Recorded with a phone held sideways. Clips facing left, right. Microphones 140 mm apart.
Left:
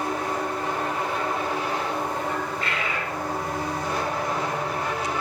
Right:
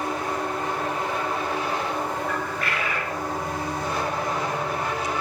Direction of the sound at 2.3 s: 20° left (ahead or behind).